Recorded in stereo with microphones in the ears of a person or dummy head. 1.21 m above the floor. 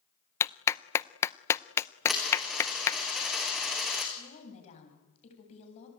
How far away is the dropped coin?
About 5 m.